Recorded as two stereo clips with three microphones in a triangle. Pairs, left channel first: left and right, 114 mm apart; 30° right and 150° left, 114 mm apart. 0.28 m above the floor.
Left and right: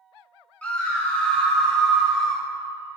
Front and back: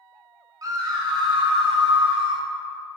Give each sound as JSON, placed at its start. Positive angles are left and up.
{"t": 0.6, "sound": "a scream", "azimuth_deg": 160, "distance_m": 1.1}